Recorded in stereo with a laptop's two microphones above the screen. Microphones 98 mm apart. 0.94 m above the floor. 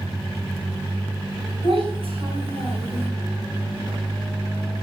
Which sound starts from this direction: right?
A child speaking, at 1.6 s.